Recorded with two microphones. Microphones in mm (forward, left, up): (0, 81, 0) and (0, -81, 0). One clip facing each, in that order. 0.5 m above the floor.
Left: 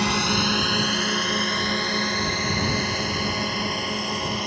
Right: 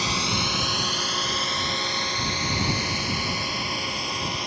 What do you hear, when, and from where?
0.0 s a drone: 60° left (ahead or behind); by 4.5 s 50° left (ahead or behind)